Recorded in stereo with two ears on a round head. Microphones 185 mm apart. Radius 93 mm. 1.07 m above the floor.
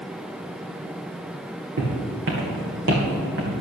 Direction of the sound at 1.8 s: 65° right (ahead or behind).